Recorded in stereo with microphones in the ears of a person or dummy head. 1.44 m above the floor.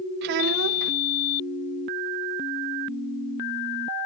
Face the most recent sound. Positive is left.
turn(degrees=-55)  # may be behind; listen again after turning